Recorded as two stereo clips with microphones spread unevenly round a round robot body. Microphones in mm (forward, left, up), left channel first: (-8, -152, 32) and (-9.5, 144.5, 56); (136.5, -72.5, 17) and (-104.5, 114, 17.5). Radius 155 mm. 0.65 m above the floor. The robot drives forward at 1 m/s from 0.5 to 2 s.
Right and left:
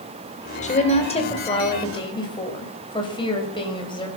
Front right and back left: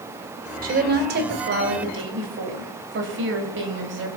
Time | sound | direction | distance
0.6 | a woman speaking | 155° right | 2.5 m